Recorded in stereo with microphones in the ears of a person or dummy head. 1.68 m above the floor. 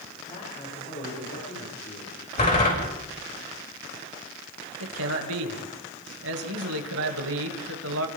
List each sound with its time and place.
0.3 s a man speaking: 35° left (ahead or behind), 7.5 m; by 2.1 s 45° left (ahead or behind), 6.5 m
2.4 s a door slam: 35° left (ahead or behind), 7 m
4.8 s a man speaking: 85° right, 2.5 m